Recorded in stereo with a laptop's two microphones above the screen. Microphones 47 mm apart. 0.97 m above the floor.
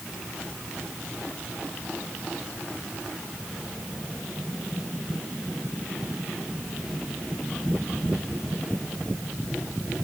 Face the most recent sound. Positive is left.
No sound to turn to.